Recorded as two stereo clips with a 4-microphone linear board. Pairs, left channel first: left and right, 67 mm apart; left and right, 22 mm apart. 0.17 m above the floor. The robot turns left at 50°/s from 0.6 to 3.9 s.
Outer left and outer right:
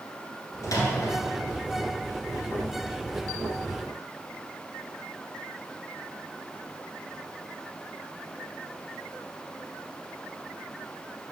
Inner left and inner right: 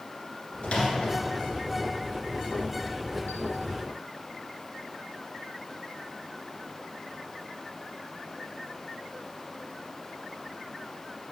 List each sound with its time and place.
0.6 s a microwave: 60° left (ahead or behind), 1.7 m